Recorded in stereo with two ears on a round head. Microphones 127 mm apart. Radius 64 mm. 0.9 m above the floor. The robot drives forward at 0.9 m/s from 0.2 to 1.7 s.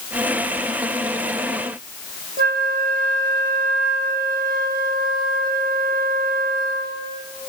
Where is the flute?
65° right (ahead or behind), 1.4 m.